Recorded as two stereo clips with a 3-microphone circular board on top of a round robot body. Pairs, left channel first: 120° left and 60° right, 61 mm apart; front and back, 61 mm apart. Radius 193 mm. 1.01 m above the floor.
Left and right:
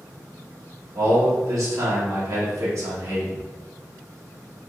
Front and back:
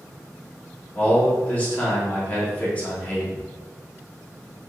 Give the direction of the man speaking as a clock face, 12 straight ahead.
2 o'clock.